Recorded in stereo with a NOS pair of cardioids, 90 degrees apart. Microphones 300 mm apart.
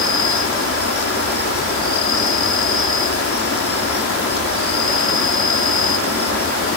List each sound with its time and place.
0.0 s an insect: 50° left